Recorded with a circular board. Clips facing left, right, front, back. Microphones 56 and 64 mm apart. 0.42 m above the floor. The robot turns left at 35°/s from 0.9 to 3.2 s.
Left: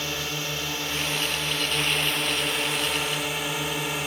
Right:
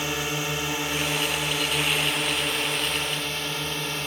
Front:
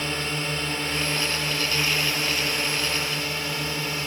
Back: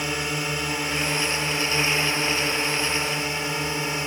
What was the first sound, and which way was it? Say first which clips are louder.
A drone: right 3 dB, back 1 dB; 130° right.